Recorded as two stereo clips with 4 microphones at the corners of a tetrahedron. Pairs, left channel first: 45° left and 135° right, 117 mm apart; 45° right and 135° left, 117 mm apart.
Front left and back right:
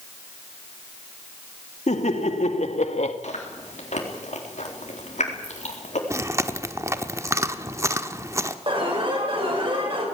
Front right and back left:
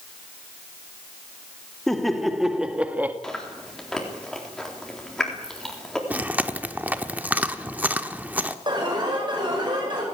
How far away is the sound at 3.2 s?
About 4 m.